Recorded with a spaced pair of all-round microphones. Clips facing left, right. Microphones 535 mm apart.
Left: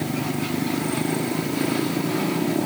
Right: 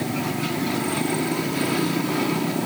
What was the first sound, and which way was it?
Only background noise.